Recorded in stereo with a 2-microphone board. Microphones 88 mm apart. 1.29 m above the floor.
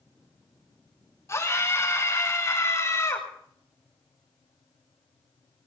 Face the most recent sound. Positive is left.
turn(degrees=35)  # may be behind; listen again after turning